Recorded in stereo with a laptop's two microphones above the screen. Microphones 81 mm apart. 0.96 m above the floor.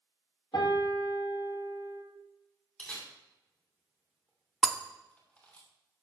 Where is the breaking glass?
Centre (ahead or behind), 0.6 m.